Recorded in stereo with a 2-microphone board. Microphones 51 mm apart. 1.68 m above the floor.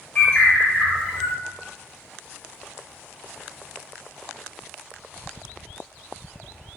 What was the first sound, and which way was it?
A bird, 30° left (ahead or behind).